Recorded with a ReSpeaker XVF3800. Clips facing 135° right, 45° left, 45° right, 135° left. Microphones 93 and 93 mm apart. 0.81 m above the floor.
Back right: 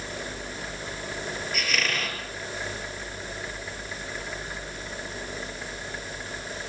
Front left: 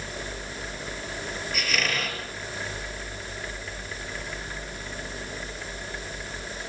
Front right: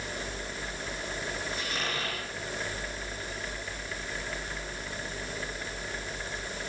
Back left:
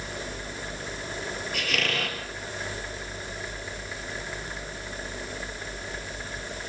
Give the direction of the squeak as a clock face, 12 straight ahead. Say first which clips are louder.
Front left 1 dB, back left 4 dB; 8 o'clock.